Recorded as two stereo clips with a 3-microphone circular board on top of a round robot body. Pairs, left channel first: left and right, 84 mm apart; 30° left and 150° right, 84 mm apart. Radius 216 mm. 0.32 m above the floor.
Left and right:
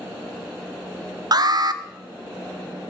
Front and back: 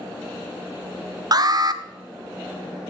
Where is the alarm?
120° right, 0.9 m.